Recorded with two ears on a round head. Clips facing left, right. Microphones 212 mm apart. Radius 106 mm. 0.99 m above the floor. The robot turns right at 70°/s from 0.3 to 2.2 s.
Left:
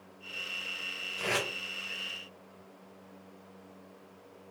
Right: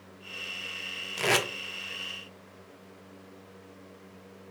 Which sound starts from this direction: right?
Tape being pulled, at 1.2 s.